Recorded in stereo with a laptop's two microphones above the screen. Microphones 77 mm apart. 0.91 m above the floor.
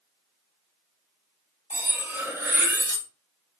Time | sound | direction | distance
1.7 | cutlery clinking | 25° right (ahead or behind) | 0.7 m